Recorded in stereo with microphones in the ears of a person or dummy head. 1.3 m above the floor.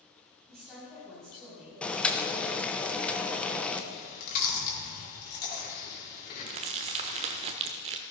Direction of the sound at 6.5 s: 30° right (ahead or behind).